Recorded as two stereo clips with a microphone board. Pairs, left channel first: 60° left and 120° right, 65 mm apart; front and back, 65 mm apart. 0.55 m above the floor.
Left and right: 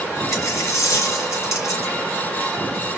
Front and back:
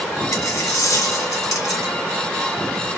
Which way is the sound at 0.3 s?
25° left.